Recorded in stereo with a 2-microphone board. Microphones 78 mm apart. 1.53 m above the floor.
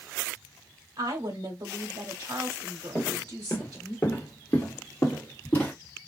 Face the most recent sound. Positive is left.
turn(degrees=25)  # may be behind; listen again after turning